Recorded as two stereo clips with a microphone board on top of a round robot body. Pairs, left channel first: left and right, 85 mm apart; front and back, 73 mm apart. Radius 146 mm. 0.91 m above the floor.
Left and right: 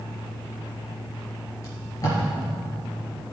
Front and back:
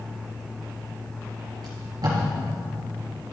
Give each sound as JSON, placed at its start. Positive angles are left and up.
{"t": 1.6, "sound": "tape being pulled", "azimuth_deg": 145, "distance_m": 4.5}